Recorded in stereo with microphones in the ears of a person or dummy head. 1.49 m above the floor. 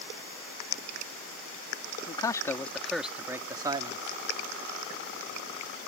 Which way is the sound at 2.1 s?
25° left (ahead or behind).